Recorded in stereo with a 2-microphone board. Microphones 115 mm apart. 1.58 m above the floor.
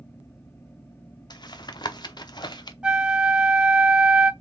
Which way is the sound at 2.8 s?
10° right (ahead or behind).